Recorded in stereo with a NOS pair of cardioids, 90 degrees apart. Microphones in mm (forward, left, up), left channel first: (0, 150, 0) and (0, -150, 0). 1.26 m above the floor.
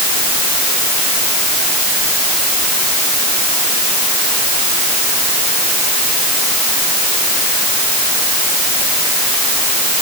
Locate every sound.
Only background noise.